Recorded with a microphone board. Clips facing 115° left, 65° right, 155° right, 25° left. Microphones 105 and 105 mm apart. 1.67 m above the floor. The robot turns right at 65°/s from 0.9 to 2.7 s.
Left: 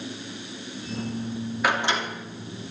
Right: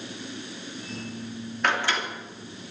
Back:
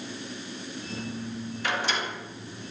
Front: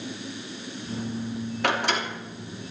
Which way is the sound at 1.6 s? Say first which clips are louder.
Left 1 dB, front 4 dB; 30° left.